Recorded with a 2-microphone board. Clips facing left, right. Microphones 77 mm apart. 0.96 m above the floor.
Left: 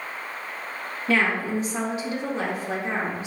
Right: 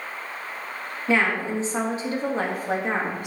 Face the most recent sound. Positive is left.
turn(degrees=-55)  # may be behind; listen again after turning